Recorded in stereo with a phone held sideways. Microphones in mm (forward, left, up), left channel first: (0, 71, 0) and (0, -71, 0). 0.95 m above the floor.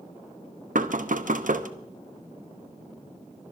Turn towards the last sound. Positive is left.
turn(degrees=-70)  # may be behind; listen again after turning